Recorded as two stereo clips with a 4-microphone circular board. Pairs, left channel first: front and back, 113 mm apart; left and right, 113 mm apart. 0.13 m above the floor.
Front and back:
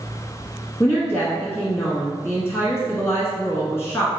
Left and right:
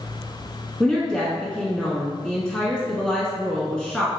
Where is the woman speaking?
15° left, 1.2 m.